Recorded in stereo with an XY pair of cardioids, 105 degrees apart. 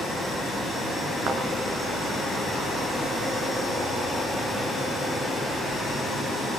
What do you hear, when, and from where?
1.3 s a thud: 70° right, 5.5 m